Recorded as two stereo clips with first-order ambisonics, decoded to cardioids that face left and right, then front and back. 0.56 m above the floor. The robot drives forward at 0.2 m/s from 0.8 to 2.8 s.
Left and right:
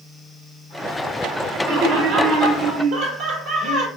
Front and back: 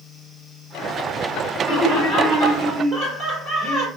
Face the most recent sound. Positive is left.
turn(degrees=-115)